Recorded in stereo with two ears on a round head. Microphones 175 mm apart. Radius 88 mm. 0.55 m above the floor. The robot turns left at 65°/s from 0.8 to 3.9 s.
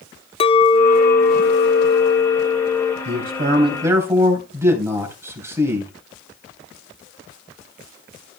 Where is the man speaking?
110° right, 3 m; by 5.9 s 165° right, 3 m.